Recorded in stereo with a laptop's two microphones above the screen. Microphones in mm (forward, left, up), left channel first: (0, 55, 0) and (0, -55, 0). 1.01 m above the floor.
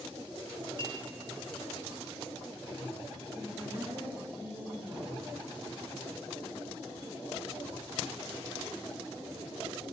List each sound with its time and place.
0.8 s a clink: 45° right (ahead or behind), 1.1 m
3.4 s a woman speaking: 20° right (ahead or behind), 1.7 m